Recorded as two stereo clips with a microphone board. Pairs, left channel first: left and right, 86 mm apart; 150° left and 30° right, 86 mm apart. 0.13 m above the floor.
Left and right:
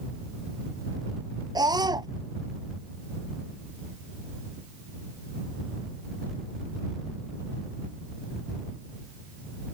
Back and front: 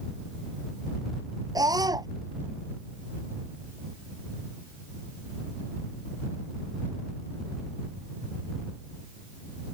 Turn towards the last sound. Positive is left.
turn(degrees=-60)